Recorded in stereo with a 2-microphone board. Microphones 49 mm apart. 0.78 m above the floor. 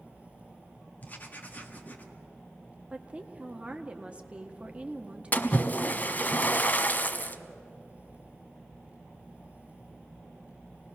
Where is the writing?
35° left (ahead or behind), 1.7 m.